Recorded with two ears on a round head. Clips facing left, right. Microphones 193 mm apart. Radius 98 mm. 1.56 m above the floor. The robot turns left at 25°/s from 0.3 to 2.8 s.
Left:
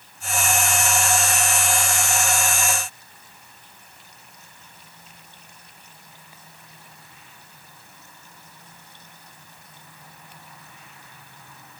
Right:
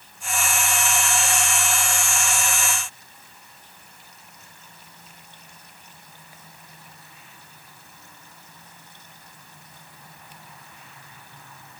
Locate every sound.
Only background noise.